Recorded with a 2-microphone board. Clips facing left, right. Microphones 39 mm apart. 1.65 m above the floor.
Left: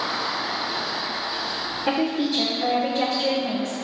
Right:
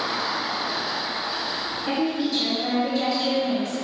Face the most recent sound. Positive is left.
turn(degrees=60)  # may be behind; listen again after turning